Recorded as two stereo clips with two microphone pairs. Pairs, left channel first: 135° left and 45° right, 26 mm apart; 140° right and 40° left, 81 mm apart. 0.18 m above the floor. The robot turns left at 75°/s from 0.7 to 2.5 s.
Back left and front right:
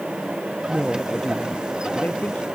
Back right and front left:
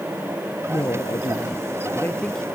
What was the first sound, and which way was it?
A woman speaking, 105° right.